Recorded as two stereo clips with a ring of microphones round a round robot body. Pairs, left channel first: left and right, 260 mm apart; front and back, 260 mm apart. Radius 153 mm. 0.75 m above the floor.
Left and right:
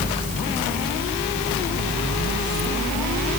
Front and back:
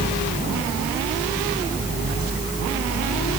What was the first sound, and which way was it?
Only background noise.